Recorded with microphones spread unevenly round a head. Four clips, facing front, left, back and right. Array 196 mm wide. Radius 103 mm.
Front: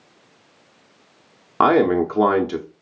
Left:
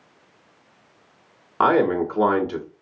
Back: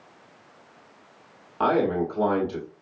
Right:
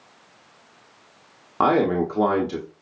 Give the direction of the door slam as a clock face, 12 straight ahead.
No door slam in this recording.